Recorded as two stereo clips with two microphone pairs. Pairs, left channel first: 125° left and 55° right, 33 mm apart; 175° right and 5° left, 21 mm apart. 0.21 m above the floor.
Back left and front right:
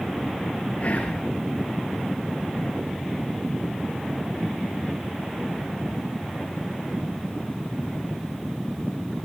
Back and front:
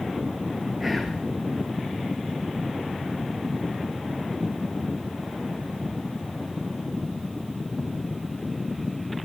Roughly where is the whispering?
Left.